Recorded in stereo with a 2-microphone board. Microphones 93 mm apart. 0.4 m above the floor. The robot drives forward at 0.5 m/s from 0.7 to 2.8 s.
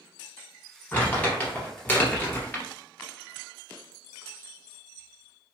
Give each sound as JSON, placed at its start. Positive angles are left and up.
{"t": 0.9, "sound": "crumpling", "side_deg": 15, "distance_m": 1.7}